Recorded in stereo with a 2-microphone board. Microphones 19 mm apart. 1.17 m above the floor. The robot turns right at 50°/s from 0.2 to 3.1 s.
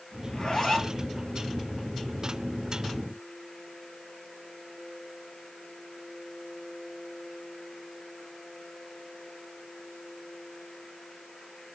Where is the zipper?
135° left, 8.5 m; by 1.0 s 170° left, 8.5 m.